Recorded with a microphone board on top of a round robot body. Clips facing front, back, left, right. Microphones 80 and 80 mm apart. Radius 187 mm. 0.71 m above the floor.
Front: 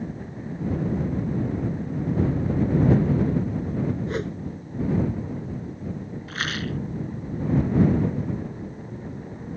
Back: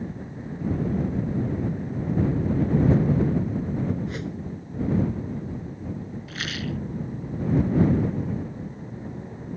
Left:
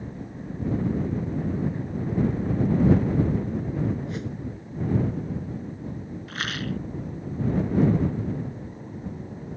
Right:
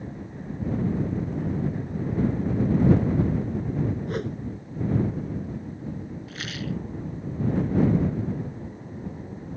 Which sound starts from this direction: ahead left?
A rattle, at 6.3 s.